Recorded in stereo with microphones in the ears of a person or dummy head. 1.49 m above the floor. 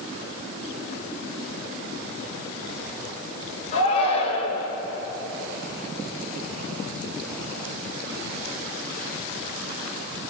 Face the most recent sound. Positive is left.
turn(degrees=35)  # may be behind; listen again after turning